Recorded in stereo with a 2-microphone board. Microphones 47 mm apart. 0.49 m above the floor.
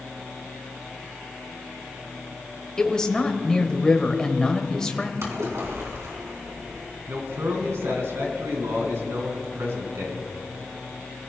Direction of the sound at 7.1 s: 60° right (ahead or behind).